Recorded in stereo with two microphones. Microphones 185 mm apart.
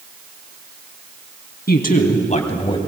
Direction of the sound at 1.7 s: 55° left (ahead or behind).